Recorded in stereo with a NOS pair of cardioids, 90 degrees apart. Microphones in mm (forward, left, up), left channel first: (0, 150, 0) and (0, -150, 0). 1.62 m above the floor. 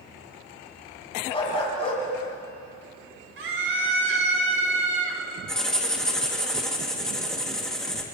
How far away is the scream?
About 5.5 m.